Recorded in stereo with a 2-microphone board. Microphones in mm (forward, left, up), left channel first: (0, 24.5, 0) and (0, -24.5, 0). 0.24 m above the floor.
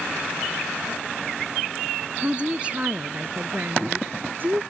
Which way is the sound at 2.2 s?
20° right (ahead or behind).